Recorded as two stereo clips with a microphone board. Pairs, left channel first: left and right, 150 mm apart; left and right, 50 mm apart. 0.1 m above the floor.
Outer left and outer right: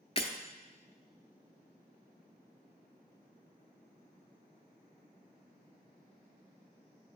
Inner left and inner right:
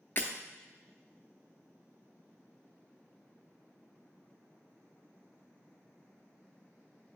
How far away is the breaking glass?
About 0.8 m.